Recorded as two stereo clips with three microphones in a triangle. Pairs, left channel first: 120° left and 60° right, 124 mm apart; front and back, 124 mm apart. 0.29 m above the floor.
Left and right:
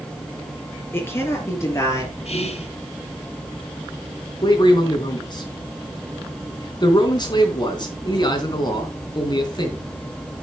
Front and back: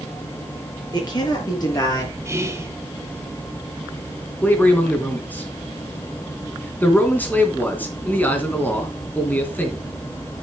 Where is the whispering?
115° left, 2.5 m.